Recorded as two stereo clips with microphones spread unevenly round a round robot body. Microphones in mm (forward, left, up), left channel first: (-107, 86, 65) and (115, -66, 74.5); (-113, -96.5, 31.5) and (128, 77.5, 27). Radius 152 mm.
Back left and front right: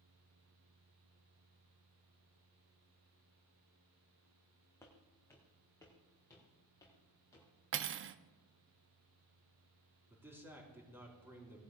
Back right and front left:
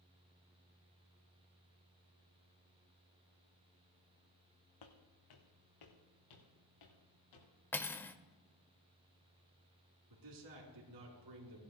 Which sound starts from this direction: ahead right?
Cutlery clinking, at 7.7 s.